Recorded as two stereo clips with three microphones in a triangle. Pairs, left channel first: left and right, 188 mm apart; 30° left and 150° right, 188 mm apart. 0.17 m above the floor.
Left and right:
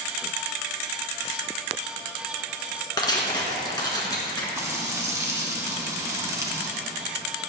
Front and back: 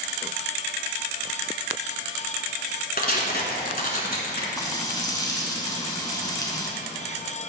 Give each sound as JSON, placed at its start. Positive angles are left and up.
{"t": 3.0, "sound": "tearing paper", "azimuth_deg": 30, "distance_m": 1.5}
{"t": 4.6, "sound": "frying", "azimuth_deg": -30, "distance_m": 1.2}